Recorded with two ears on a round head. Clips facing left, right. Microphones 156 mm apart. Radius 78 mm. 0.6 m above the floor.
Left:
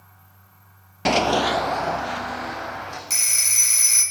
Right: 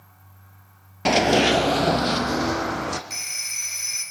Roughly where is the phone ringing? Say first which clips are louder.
Left 3 dB; left.